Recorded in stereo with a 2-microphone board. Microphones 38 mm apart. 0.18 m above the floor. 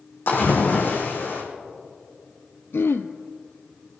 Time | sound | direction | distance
0.3 | a splash | 65° left (ahead or behind) | 5 m
2.7 | throat clearing | 80° left | 0.9 m